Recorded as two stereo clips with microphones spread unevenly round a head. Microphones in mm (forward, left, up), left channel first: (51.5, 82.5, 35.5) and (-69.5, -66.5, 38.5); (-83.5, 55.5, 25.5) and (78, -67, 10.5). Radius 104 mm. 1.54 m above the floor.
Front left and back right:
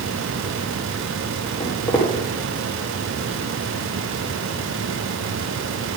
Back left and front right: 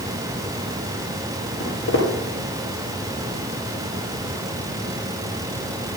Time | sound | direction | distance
1.6 | footsteps | 135° left | 2.5 m